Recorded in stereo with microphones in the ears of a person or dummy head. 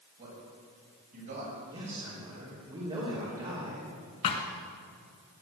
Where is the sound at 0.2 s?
40° right (ahead or behind), 6.5 m; by 1.6 s 50° right (ahead or behind), 6.5 m.